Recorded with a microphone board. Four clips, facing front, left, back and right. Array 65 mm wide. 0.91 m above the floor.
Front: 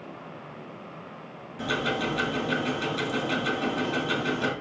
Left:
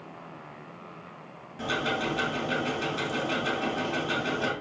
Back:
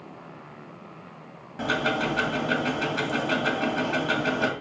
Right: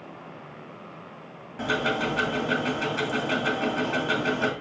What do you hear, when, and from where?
1.6 s ticking: 145° right, 2.5 m